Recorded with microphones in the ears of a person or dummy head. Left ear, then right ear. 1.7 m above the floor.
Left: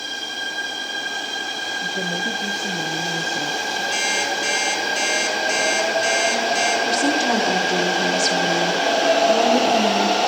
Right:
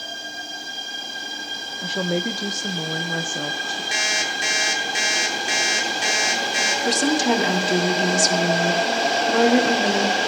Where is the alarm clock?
55° right (ahead or behind), 4.5 m.